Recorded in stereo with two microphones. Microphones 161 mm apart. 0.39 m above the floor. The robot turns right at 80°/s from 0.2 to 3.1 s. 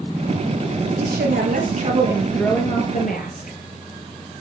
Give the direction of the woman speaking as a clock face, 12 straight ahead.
4 o'clock.